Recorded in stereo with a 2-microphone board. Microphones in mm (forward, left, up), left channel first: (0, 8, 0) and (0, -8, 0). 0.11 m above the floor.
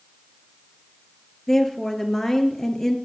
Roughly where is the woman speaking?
Left.